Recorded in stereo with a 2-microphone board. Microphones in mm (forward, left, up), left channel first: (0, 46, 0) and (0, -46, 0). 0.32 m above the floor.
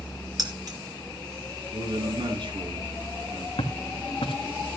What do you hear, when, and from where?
0.4 s keys jangling: 45° right (ahead or behind), 4 m
1.7 s a man speaking: 65° right (ahead or behind), 4.5 m
3.6 s footsteps: 70° left (ahead or behind), 1.5 m